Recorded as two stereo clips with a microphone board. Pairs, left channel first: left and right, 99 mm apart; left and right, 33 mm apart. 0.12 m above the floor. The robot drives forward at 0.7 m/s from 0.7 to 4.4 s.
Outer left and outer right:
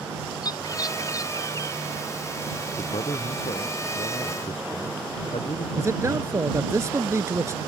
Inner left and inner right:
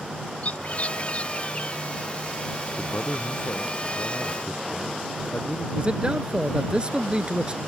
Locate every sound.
0.4 s a bird: 40° left (ahead or behind); by 1.8 s 30° left (ahead or behind)
2.8 s a man speaking: 80° left
5.8 s a man speaking: 30° right (ahead or behind)